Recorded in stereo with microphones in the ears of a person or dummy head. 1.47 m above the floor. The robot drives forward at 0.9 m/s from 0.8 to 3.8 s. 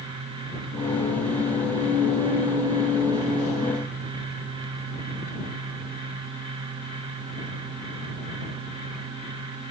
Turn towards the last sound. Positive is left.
No sound to turn to.